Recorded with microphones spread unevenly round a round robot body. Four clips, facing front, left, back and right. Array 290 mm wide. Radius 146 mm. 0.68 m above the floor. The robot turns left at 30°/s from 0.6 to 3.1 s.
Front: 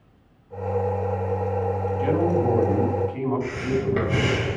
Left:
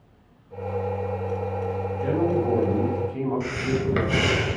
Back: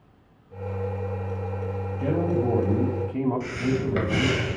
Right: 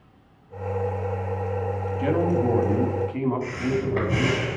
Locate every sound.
2.0 s a man speaking: 135° right, 3.5 m; by 4.4 s 165° right, 3.5 m
3.4 s breathing: 110° left, 5 m